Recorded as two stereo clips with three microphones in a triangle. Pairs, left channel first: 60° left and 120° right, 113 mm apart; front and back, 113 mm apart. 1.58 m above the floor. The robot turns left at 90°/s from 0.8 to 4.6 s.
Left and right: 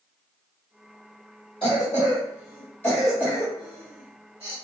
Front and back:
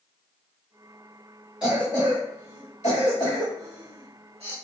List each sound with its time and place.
1.6 s a cough: 100° left, 1.8 m; by 4.5 s 165° right, 1.8 m